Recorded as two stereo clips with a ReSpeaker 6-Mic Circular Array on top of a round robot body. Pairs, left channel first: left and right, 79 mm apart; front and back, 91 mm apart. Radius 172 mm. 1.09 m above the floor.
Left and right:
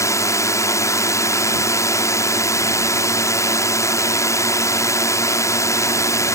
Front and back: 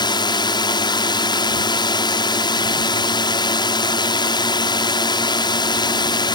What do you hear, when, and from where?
0.0 s a drone: 40° left